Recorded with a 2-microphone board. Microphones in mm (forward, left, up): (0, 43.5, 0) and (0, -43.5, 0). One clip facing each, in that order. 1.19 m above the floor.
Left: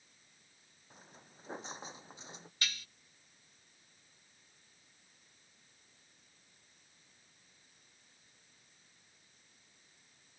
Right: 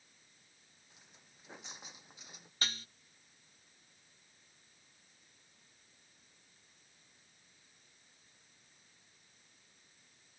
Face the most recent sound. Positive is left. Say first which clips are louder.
# right 1 dB
turn(degrees=-40)  # may be behind; listen again after turning